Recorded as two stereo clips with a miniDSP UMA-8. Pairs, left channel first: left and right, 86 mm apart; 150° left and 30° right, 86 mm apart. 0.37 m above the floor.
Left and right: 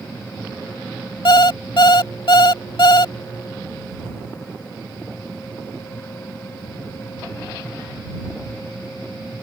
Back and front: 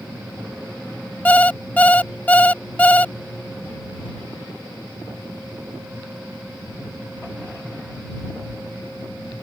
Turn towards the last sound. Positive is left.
turn(degrees=80)